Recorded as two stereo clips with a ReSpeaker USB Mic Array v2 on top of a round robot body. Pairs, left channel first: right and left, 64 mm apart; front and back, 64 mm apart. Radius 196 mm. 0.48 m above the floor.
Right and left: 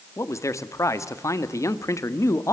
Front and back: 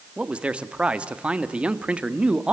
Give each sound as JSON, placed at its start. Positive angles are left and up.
{"t": 0.2, "sound": "a man speaking", "azimuth_deg": -110, "distance_m": 1.7}